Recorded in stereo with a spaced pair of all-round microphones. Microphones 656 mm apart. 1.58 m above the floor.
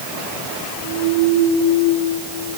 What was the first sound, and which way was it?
Only background noise.